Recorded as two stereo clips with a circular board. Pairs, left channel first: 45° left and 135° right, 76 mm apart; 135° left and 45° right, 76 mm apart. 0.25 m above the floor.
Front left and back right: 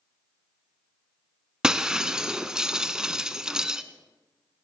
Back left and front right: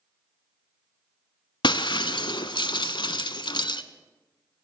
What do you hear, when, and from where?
1.6 s breaking glass: 145° left, 0.5 m